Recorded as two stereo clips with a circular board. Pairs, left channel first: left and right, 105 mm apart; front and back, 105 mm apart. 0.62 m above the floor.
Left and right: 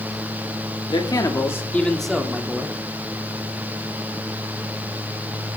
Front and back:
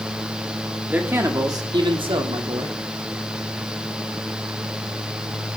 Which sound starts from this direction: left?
A man speaking, at 0.9 s.